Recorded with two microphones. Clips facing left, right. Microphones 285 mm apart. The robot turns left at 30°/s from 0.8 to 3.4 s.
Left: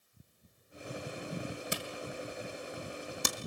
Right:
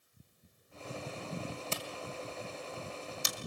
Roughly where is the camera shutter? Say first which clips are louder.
Left 2 dB; centre.